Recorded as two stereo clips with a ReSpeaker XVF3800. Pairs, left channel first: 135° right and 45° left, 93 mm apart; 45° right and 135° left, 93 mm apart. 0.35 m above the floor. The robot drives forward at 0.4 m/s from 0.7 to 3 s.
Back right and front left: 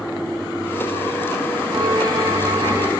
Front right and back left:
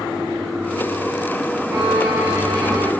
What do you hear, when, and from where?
1.7 s a violin: 85° left, 4 m; by 2.9 s 95° left, 4 m